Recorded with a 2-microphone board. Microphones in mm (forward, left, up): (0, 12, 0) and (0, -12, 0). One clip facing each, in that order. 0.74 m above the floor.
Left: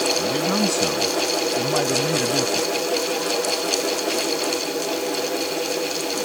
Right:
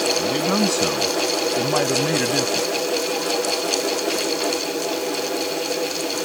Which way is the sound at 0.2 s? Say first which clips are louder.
Right 1 dB; 15° right (ahead or behind).